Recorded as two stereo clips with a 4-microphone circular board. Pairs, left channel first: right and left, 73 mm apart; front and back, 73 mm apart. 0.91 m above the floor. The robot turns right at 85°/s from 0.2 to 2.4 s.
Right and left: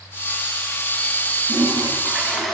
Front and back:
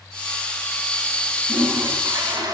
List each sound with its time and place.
1.5 s a toilet flushing: 105° left, 4.5 m; by 2.5 s straight behind, 4.5 m